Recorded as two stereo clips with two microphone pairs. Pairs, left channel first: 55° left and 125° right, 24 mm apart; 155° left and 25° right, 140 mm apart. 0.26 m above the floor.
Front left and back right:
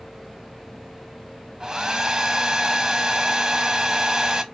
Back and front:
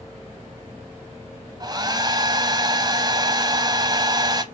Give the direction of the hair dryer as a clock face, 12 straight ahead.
3 o'clock.